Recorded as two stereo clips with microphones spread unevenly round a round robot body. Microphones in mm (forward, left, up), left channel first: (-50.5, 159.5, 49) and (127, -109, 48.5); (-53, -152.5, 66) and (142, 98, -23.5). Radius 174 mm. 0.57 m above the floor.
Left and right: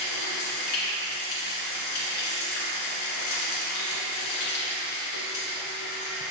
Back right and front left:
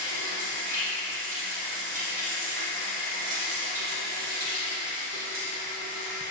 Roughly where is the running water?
Behind left.